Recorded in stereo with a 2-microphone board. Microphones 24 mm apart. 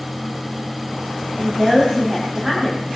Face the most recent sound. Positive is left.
turn(degrees=-35)  # may be behind; listen again after turning